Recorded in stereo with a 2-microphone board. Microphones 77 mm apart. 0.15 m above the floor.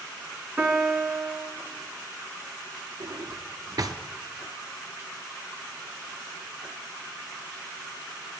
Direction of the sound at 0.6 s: 15° right (ahead or behind).